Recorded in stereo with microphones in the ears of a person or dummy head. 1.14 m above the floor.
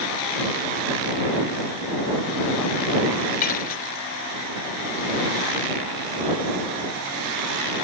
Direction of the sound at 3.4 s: 40° left (ahead or behind).